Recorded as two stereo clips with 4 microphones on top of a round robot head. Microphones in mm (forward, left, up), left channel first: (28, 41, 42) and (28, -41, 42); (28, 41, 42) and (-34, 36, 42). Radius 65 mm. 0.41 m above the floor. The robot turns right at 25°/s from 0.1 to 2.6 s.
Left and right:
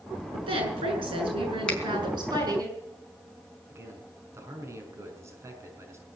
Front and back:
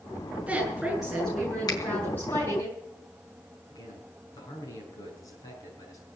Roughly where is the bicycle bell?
No bicycle bell in this recording.